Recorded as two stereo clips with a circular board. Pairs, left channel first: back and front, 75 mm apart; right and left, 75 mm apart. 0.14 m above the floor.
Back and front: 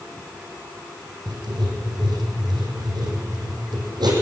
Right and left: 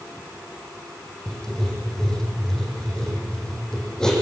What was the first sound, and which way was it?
Writing, 10° right.